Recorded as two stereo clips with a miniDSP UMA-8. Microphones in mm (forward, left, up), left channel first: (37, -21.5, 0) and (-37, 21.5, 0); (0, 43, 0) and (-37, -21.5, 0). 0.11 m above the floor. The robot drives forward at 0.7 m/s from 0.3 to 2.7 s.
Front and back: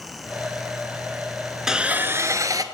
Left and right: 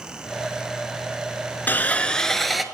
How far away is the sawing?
About 0.7 m.